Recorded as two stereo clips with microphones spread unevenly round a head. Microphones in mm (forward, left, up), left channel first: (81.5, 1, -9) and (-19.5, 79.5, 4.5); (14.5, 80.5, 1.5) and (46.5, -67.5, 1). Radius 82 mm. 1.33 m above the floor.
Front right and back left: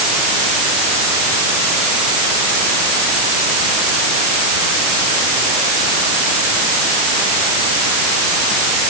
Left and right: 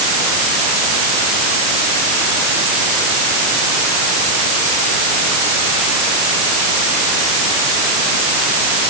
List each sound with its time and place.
Only background noise.